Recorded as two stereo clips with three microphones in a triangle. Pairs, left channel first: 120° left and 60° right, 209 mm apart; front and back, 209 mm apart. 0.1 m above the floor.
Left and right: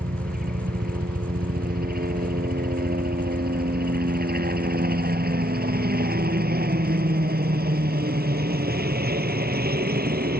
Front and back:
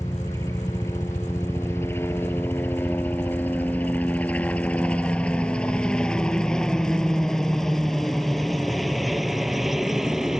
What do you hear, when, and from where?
0.0 s a helicopter: 70° right; by 10.4 s 90° right